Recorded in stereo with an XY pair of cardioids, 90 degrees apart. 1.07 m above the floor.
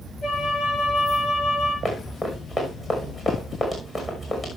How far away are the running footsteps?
About 6 m.